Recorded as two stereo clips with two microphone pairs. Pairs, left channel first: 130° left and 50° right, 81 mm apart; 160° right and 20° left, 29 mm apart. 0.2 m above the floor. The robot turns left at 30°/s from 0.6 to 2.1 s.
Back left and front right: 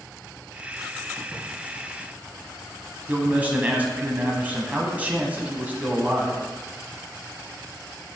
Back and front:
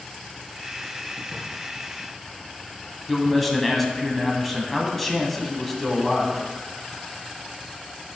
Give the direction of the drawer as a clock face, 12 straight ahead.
12 o'clock.